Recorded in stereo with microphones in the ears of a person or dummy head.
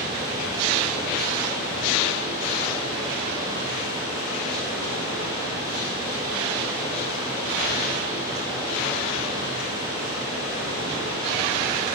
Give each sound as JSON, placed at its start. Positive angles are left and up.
{"t": 0.0, "sound": "running water", "side_deg": -15, "distance_m": 0.9}